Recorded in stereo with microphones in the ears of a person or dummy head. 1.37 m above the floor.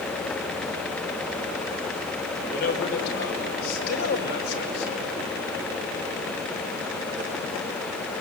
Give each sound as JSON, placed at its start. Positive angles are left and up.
{"t": 2.5, "sound": "a man speaking", "side_deg": 55, "distance_m": 4.5}